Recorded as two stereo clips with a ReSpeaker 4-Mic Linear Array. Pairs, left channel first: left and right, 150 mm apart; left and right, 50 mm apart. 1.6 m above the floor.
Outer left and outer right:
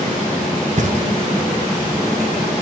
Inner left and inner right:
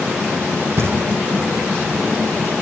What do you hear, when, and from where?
0.8 s knocking: 55° right (ahead or behind), 1.5 m